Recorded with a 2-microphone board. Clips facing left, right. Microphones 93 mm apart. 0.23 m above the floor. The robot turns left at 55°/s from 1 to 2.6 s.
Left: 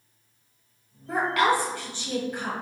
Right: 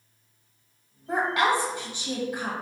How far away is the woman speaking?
About 0.9 m.